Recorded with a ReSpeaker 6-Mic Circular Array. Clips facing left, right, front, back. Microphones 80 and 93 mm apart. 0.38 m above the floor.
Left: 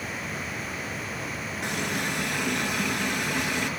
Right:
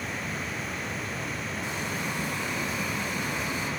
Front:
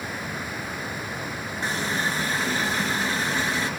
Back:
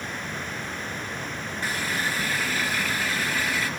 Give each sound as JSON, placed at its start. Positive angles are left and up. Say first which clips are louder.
{"t": 1.6, "sound": "a running tap", "louder": "left 5 dB, front 2 dB", "azimuth_deg": 70, "distance_m": 4.5}